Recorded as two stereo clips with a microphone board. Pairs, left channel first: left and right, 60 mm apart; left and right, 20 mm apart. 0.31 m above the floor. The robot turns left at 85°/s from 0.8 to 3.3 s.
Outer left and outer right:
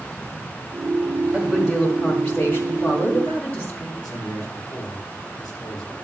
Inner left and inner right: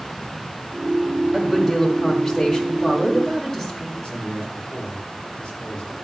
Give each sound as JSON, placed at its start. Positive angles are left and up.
{"t": 1.3, "sound": "a woman speaking", "azimuth_deg": -135, "distance_m": 1.9}
{"t": 4.0, "sound": "a man speaking", "side_deg": 80, "distance_m": 6.0}